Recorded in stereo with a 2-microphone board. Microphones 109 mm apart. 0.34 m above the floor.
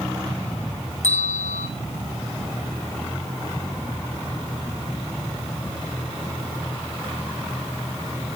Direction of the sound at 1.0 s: 85° left.